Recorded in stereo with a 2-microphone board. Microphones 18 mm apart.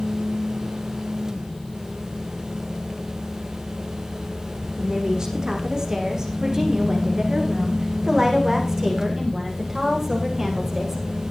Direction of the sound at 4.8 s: 40° right (ahead or behind).